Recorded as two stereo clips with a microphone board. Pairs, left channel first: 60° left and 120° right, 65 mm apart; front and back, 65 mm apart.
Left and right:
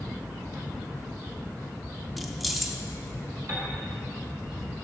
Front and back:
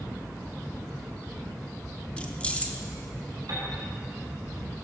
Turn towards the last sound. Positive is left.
turn(degrees=-160)